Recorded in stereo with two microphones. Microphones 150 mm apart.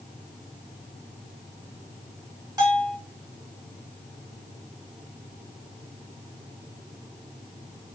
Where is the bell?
25° right (ahead or behind), 1.8 m.